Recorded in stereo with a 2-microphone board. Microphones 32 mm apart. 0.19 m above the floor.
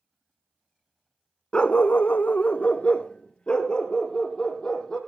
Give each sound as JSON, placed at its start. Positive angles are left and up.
{"t": 1.5, "sound": "a dog barking", "side_deg": 30, "distance_m": 0.6}